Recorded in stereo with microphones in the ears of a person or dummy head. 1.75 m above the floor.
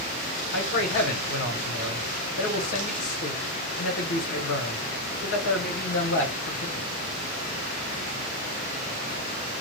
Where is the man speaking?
60° left (ahead or behind), 1.5 m.